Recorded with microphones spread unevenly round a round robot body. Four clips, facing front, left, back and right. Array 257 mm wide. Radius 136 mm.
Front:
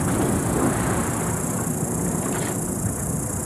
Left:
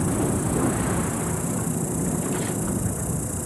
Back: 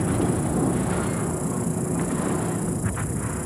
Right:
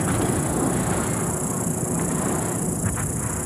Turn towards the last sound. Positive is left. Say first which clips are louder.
# right 1 dB, front 1 dB
turn(degrees=0)